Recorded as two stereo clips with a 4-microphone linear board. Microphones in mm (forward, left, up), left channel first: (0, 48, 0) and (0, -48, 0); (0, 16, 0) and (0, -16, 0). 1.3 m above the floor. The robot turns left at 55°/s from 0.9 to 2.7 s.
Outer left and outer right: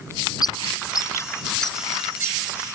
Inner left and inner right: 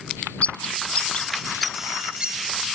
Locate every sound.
0.4 s a bird: 45° left (ahead or behind); by 2.4 s 35° right (ahead or behind)